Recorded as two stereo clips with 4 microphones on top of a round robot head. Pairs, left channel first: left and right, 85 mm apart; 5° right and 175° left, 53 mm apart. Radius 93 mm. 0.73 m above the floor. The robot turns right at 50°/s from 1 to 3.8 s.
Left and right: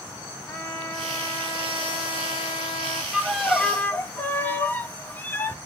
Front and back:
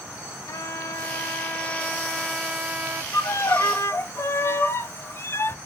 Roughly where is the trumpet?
Ahead.